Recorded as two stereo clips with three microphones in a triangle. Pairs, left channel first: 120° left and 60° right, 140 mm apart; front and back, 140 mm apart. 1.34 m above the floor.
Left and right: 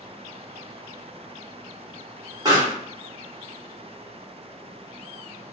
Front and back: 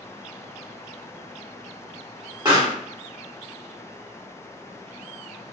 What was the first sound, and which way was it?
A pop, 120° right.